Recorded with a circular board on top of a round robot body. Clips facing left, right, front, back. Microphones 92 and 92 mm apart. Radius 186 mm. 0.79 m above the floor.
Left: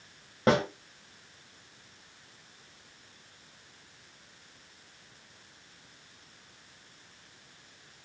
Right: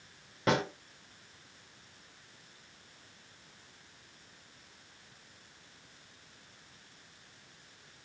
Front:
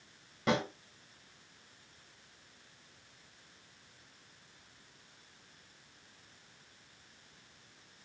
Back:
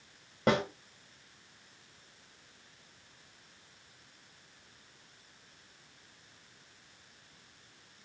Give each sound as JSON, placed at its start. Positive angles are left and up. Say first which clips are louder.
{"t": 0.5, "sound": "a snare drum", "louder": "left 5 dB, back 3 dB", "azimuth_deg": 140, "distance_m": 1.7}